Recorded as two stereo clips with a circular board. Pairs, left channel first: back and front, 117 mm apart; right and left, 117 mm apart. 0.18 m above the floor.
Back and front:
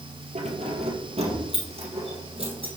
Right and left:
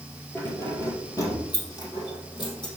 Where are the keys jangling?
20° right, 2.5 m; by 2.7 s 40° right, 4 m.